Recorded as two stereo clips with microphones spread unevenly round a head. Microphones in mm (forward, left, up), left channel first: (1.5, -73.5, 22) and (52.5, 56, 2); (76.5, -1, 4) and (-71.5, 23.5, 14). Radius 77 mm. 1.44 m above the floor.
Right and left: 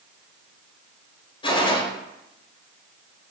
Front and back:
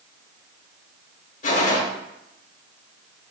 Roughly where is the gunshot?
Ahead right.